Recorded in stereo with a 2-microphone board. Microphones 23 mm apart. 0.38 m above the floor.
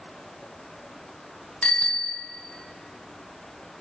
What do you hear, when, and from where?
1.6 s a bicycle bell: 70° left (ahead or behind), 2 m